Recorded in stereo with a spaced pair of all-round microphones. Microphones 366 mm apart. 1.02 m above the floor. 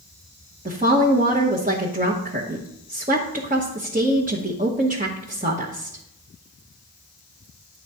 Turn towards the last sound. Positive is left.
turn(degrees=-20)  # may be behind; listen again after turning